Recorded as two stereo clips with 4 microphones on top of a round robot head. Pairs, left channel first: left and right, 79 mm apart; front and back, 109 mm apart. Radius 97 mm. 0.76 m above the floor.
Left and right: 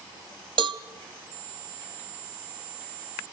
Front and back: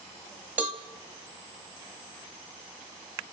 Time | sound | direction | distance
0.6 | a cowbell | 105° right | 1.0 m